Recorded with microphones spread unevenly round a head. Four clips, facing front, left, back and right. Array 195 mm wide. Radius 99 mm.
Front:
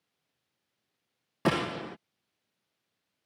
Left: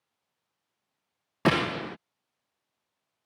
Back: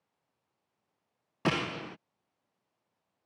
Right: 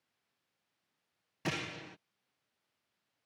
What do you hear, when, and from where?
1.4 s a gunshot: 70° left